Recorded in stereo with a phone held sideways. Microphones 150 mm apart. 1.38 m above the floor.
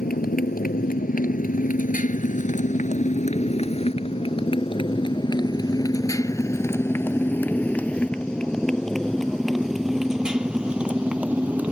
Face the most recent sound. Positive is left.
turn(degrees=-10)  # may be behind; listen again after turning